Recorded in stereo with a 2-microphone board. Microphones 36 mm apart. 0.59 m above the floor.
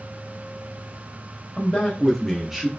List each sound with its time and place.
1.6 s a man speaking: 20° left (ahead or behind), 0.9 m; by 2.7 s 15° right (ahead or behind), 0.7 m